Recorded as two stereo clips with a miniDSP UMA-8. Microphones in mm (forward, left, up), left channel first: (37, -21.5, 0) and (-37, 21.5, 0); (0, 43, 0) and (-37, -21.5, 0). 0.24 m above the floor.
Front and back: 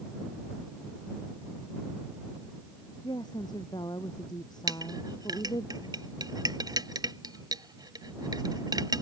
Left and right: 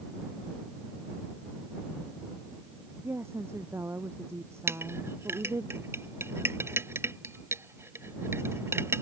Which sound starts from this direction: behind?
A clink, at 4.7 s.